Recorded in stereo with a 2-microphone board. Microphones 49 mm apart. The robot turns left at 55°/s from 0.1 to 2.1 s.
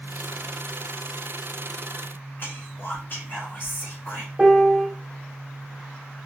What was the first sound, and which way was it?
Whispering, 40° left (ahead or behind).